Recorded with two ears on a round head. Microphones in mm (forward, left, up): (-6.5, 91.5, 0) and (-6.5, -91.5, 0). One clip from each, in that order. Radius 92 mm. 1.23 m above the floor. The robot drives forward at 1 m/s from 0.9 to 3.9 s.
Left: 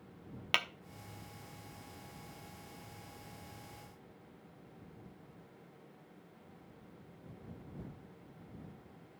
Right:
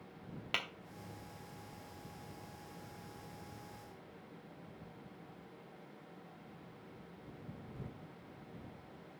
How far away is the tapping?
About 0.8 m.